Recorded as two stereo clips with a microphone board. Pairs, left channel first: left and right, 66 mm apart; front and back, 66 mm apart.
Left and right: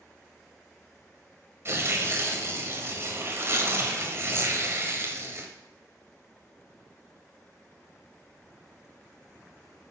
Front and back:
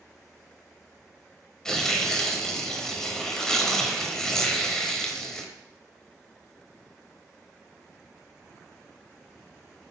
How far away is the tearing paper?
About 1.0 m.